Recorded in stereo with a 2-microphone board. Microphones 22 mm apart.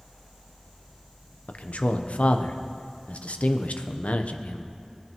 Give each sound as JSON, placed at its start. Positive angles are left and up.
{"t": 1.5, "sound": "a man speaking", "side_deg": 65, "distance_m": 0.8}